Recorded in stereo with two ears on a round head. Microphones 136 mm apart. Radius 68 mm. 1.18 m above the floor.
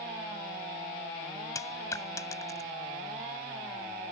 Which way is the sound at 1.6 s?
20° left (ahead or behind).